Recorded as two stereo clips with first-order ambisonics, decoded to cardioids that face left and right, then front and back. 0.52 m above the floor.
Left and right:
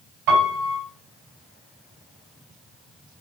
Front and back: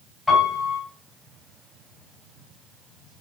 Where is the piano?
75° right, 4.5 m.